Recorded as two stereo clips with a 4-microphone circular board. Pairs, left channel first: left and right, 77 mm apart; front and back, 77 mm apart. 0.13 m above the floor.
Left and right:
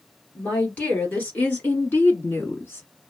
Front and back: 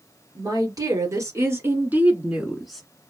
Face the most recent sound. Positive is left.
turn(degrees=80)